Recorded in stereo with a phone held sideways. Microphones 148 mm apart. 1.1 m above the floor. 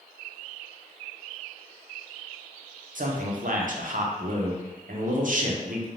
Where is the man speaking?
65° right (ahead or behind), 0.5 m.